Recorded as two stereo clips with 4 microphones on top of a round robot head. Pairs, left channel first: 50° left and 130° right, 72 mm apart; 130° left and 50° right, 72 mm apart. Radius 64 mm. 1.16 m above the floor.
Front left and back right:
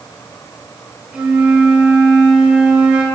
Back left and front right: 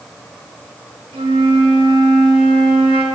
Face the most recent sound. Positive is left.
turn(degrees=-50)